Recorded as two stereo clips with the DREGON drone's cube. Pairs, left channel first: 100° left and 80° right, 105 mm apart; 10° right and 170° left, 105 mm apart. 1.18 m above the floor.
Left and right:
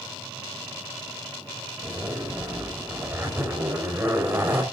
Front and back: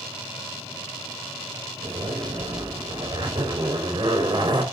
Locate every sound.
1.8 s a zipper: 145° right, 5.5 m